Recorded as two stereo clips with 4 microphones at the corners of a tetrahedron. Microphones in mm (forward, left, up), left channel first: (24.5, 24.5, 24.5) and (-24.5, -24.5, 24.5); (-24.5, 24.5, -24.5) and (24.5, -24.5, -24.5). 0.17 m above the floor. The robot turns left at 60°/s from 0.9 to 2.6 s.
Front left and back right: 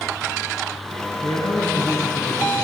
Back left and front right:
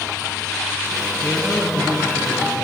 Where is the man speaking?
50° left, 3 m; by 2.6 s 35° right, 3 m.